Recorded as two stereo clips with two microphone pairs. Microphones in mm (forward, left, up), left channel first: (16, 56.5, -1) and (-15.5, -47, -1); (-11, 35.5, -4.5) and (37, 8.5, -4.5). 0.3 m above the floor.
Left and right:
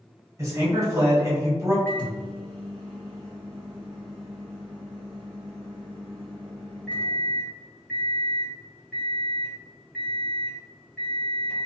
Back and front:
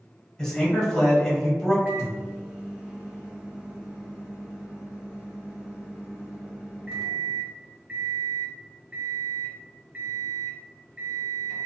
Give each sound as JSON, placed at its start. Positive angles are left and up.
{"t": 0.4, "sound": "a man speaking", "azimuth_deg": -140, "distance_m": 1.1}
{"t": 1.9, "sound": "a microwave", "azimuth_deg": 10, "distance_m": 1.1}